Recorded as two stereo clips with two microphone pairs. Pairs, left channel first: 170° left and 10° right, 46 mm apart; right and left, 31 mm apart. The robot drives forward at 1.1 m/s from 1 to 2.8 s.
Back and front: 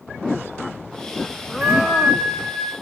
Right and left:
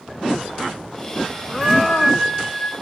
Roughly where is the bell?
Ahead.